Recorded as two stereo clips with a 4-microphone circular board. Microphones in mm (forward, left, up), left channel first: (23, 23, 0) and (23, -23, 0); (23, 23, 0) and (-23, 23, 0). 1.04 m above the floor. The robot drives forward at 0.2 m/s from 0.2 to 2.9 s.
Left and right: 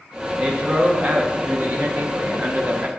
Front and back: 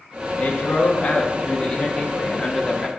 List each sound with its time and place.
0.4 s a man speaking: 50° right, 0.9 m; by 2.9 s 95° right, 0.8 m